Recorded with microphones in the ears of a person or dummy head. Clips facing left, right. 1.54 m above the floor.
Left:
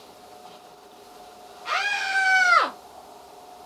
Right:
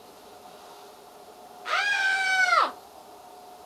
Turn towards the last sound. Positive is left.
turn(degrees=20)  # may be behind; listen again after turning